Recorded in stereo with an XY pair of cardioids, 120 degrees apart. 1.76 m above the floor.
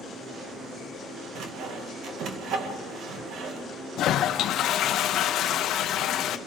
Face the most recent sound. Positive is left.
turn(degrees=65)